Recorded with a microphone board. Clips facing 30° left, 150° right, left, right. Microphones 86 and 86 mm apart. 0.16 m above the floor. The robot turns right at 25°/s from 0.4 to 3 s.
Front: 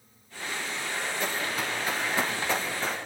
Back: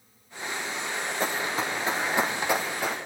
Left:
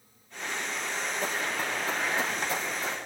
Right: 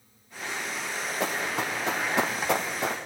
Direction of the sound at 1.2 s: 95° right.